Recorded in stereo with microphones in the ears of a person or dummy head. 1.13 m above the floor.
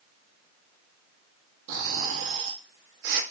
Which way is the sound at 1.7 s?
65° right (ahead or behind).